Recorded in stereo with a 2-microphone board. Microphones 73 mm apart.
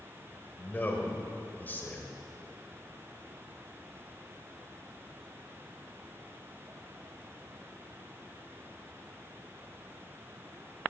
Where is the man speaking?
25° left (ahead or behind), 1.6 m.